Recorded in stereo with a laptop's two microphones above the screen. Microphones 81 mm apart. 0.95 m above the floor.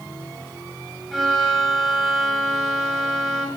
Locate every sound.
1.1 s a violin: centre (ahead or behind), 1.0 m